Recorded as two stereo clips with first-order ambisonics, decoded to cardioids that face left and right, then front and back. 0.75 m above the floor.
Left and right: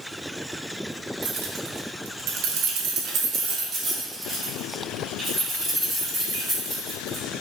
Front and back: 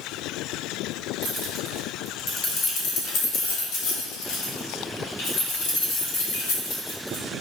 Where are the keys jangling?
115° right, 0.9 m; by 7.2 s 5° right, 3 m.